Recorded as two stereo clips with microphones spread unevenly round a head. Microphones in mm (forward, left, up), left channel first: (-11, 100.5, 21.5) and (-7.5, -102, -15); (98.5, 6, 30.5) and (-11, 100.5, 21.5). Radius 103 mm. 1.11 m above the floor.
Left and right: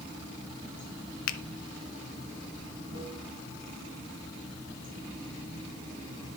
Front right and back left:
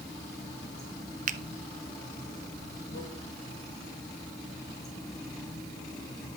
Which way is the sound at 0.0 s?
50° right.